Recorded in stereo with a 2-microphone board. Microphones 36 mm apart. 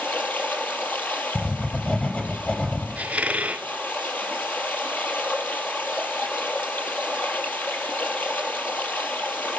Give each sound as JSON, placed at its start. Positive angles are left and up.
{"t": 0.0, "sound": "running water", "side_deg": 55, "distance_m": 3.5}
{"t": 1.4, "sound": "writing", "side_deg": 30, "distance_m": 4.0}
{"t": 3.0, "sound": "a squeak", "side_deg": -40, "distance_m": 1.2}